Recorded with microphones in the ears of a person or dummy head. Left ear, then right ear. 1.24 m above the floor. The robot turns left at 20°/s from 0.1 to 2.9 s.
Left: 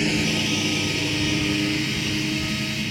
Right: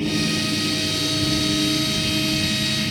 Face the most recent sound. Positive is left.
turn(degrees=15)